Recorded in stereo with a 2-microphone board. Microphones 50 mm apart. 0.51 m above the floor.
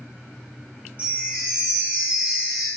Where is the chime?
30° right (ahead or behind), 1.5 m.